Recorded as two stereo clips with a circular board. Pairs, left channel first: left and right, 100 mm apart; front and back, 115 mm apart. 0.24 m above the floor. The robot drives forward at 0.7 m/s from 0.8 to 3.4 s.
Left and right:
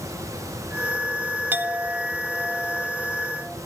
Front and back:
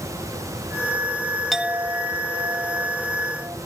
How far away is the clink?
About 0.5 m.